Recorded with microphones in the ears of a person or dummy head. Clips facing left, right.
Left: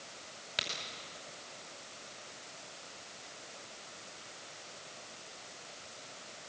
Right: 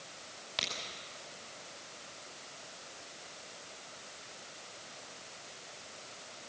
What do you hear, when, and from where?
0.6 s a crack: 20° left (ahead or behind), 5 m